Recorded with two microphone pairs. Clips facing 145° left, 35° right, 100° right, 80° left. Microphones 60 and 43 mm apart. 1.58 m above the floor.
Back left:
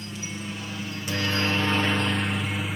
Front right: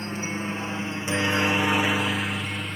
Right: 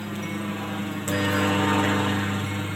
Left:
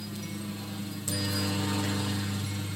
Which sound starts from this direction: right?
A helicopter, at 0.0 s.